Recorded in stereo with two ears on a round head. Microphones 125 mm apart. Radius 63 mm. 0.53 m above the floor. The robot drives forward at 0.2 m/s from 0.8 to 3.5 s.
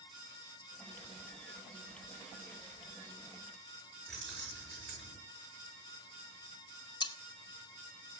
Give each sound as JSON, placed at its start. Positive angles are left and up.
{"t": 4.1, "sound": "keys jangling", "side_deg": 0, "distance_m": 6.0}
{"t": 7.0, "sound": "cutlery clinking", "side_deg": 30, "distance_m": 0.5}